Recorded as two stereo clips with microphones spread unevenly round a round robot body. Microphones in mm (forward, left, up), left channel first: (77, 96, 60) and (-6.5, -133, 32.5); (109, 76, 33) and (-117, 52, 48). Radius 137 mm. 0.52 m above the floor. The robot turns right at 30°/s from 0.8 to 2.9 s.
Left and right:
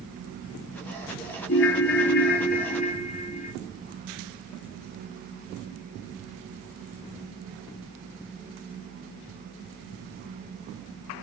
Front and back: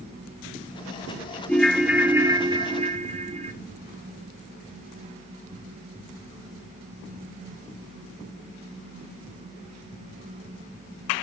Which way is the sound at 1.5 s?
85° left.